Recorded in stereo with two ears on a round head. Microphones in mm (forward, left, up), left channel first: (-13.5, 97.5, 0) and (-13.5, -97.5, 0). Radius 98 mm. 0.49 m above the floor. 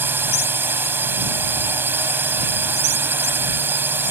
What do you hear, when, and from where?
0.0 s a drone: 10° right (ahead or behind)